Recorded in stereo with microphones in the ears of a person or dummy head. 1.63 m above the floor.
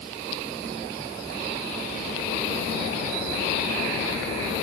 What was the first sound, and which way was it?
Only background noise.